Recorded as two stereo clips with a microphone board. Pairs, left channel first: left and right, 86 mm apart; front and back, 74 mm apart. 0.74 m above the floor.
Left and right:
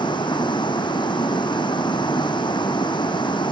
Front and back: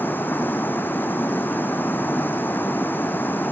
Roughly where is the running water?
Ahead left.